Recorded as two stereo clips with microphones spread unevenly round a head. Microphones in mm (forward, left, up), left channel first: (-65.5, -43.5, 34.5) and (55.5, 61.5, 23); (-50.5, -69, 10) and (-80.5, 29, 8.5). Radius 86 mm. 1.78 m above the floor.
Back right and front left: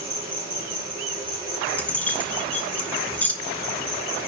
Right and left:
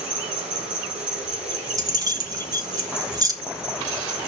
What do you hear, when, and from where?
0.0 s an insect: 115° left, 7.5 m
1.8 s keys jangling: 145° left, 1.3 m